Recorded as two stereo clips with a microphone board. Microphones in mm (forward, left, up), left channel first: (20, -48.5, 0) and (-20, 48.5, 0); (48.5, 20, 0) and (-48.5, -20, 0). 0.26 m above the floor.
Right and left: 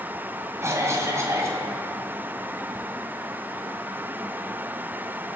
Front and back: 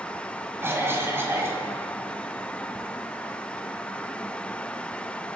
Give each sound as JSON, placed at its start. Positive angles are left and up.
{"t": 0.6, "sound": "a cough", "azimuth_deg": 155, "distance_m": 1.8}